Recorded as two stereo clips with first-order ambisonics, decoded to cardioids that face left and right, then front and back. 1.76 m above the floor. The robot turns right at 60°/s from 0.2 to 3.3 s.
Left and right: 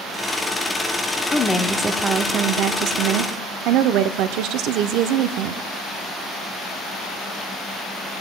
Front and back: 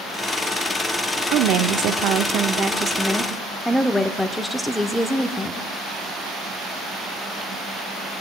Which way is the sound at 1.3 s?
155° left.